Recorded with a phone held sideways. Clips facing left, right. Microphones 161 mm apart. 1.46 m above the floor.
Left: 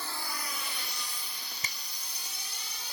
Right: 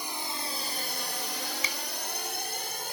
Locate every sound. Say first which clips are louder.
0.0 s a drone: right 3 dB; 15° right (ahead or behind); by 3.0 s 50° right (ahead or behind)
1.6 s a finger snap: right 8 dB; 45° left (ahead or behind)